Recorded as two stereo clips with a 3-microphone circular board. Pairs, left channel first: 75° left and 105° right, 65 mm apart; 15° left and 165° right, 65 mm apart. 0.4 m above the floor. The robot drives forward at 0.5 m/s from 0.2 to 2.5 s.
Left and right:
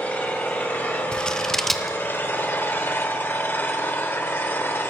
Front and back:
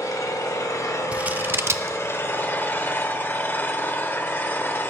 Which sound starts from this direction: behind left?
Scissors, at 1.1 s.